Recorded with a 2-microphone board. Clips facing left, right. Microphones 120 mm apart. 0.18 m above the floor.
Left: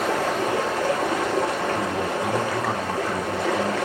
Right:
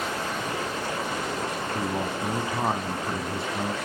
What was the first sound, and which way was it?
Running water, 90° left.